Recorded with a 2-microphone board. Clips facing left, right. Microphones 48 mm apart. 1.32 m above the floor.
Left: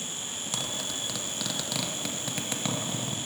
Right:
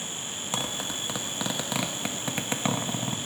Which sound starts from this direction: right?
A zipper, at 0.5 s.